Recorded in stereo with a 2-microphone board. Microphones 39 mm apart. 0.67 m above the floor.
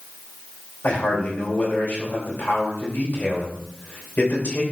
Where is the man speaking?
60° left (ahead or behind), 3 m.